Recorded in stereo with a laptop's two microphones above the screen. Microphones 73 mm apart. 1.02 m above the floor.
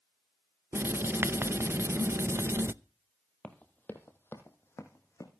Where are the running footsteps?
15° left (ahead or behind), 1.8 m; by 5.3 s 40° left (ahead or behind), 3.5 m.